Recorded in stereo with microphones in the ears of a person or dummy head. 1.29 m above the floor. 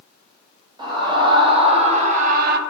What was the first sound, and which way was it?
A scream, 25° right (ahead or behind).